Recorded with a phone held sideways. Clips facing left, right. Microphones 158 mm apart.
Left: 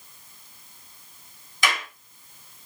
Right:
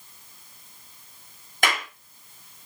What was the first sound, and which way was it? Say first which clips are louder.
A clap: right 1 dB; 55° right (ahead or behind).